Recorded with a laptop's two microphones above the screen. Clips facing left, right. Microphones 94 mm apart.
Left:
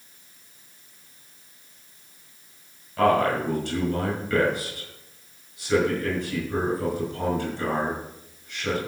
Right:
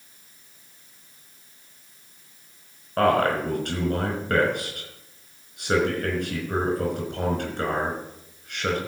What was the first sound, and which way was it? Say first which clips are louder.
A man speaking: even; 55° right (ahead or behind).